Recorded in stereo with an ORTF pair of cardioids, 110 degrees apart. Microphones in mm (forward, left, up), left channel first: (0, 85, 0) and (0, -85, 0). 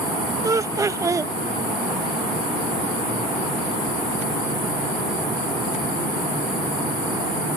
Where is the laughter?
20° right.